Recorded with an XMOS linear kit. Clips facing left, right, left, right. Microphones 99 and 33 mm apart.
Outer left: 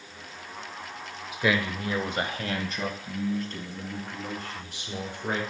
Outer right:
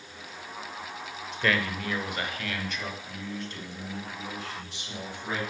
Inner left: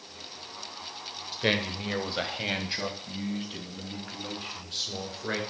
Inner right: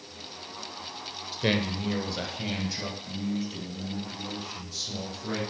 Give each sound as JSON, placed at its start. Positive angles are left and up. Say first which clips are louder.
{"t": 1.3, "sound": "a man speaking", "louder": "outer left 2 dB, even", "side_deg": 5, "distance_m": 0.8}